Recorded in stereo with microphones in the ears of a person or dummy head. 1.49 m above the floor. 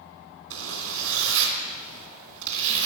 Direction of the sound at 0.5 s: 75° right (ahead or behind).